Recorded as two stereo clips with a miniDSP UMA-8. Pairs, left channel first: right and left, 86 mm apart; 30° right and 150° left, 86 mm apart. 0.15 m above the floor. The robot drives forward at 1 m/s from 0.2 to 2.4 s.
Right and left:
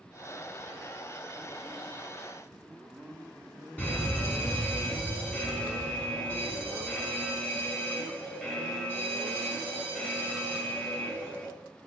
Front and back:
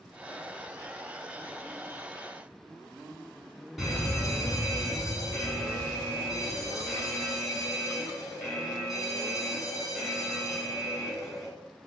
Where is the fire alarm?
125° right, 2 m.